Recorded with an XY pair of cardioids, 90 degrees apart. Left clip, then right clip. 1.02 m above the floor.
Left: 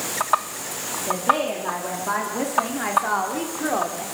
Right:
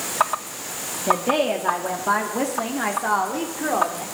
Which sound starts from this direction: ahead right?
A woman speaking, at 1.1 s.